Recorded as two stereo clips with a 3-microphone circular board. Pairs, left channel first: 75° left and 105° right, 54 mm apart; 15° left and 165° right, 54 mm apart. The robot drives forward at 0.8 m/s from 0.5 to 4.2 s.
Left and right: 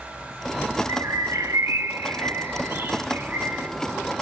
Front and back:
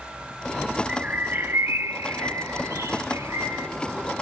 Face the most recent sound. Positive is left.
turn(degrees=-160)